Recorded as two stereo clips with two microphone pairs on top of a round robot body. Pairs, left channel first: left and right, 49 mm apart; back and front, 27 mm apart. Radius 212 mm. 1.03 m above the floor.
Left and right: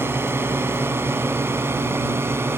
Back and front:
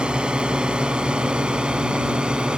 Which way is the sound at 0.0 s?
50° right.